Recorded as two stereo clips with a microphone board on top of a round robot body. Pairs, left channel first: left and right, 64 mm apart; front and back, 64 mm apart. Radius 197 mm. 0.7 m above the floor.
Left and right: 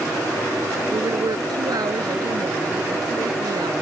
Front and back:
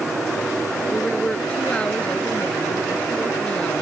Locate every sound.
0.9 s a woman speaking: 75° right